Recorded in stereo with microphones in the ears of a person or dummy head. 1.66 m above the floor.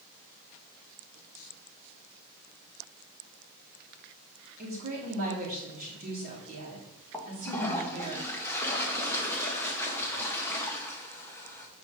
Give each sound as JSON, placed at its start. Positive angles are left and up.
{"t": 4.6, "sound": "a woman speaking", "side_deg": -45, "distance_m": 2.5}
{"t": 7.1, "sound": "a toilet flushing", "side_deg": 15, "distance_m": 1.1}